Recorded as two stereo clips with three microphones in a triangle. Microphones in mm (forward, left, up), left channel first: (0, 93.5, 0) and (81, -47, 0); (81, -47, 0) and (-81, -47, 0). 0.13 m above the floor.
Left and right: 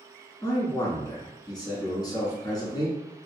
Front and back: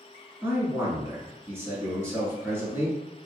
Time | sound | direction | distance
0.4 | a man speaking | 125° left | 1.1 m